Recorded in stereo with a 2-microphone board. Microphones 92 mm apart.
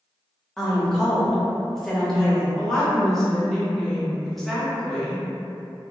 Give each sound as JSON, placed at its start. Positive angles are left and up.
{"t": 0.6, "sound": "a woman speaking", "side_deg": 5, "distance_m": 0.7}
{"t": 2.6, "sound": "a woman speaking", "side_deg": 5, "distance_m": 0.8}